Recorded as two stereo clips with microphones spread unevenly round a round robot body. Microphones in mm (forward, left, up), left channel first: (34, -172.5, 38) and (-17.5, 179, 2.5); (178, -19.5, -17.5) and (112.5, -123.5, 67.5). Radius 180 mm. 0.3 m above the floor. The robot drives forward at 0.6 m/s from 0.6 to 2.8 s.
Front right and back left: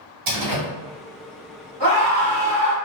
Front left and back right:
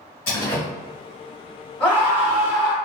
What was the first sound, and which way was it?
A door slam, 85° left.